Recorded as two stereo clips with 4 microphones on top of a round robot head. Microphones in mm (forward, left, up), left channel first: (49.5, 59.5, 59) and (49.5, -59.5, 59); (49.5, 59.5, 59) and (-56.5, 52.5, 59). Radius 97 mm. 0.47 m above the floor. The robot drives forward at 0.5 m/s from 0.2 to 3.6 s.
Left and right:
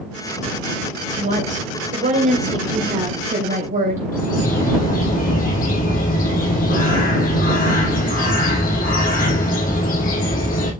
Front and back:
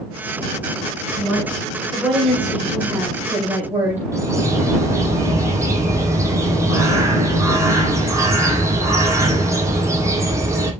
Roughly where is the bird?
Behind left.